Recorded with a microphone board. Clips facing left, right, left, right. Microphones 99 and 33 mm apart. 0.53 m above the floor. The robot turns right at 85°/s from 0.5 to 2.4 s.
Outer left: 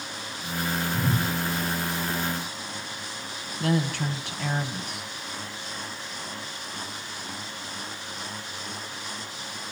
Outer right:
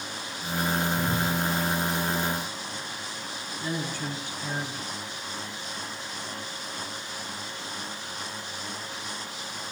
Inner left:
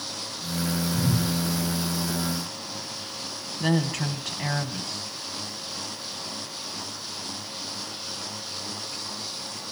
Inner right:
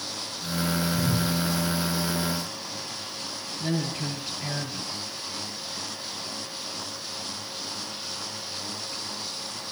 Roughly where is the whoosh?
Left.